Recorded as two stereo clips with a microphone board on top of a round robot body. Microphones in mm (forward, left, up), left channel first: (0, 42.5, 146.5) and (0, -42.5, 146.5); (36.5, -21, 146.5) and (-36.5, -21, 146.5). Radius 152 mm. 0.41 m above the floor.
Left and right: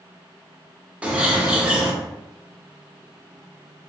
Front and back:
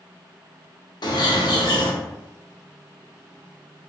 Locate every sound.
1.0 s a bird: 15° right, 0.7 m